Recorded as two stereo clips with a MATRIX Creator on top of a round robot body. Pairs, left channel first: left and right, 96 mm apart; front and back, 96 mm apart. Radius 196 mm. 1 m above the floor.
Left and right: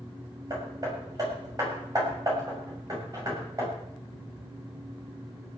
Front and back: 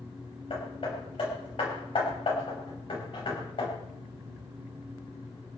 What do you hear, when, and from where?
0.5 s hammering: 35° right, 6.5 m